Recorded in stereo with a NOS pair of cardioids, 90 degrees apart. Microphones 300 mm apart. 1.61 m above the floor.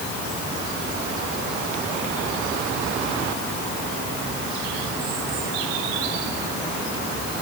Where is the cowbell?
I don't hear a cowbell.